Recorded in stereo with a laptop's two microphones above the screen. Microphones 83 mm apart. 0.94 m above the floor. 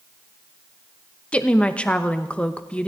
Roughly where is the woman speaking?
Centre.